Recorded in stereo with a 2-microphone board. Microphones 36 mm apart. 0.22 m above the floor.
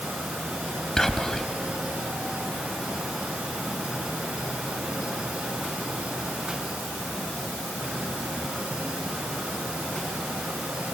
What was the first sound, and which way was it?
Whispering, 15° left (ahead or behind).